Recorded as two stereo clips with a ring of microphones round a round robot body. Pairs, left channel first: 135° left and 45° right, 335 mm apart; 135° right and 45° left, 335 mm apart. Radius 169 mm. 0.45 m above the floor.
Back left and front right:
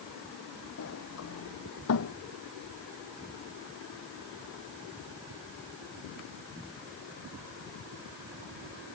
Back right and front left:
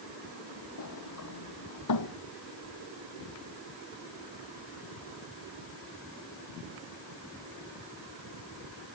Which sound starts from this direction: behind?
A sliding door, at 0.8 s.